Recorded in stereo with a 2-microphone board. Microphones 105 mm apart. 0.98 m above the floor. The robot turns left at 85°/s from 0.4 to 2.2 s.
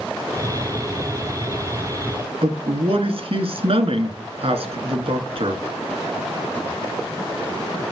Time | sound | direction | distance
2.4 | a man speaking | 65° right (ahead or behind) | 1.6 m